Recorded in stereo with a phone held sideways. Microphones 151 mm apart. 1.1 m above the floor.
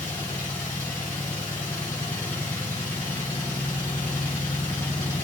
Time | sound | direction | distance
0.0 | a machine running | 15° left (ahead or behind) | 1.6 m